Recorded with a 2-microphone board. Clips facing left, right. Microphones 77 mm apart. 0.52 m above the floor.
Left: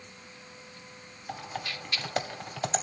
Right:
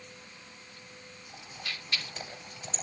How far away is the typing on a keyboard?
About 2 m.